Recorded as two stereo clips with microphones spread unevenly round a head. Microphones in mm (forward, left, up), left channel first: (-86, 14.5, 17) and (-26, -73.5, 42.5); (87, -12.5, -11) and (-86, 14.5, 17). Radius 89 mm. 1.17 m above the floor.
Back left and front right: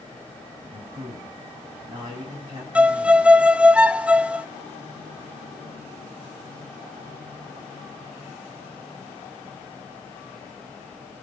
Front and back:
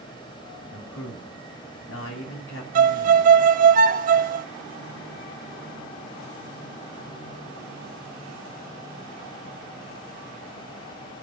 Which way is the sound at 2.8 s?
140° right.